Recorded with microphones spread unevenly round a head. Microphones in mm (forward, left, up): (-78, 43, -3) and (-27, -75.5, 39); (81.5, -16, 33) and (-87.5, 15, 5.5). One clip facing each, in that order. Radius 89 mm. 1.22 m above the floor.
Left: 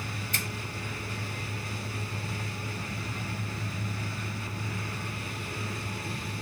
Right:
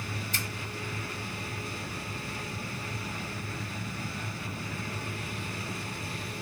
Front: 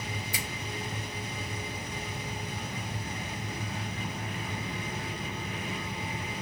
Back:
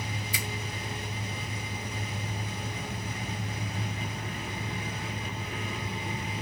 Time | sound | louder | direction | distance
0.3 | a finger snap | left 1 dB, back 1 dB | 145° left | 3 m